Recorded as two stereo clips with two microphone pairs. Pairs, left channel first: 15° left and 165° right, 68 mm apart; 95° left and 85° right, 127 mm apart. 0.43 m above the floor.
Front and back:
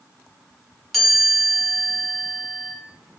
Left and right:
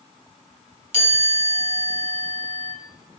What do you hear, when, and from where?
0.9 s a chime: 70° right, 2.5 m